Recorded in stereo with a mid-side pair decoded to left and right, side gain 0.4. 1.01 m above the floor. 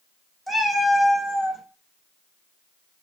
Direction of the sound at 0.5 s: 10° left.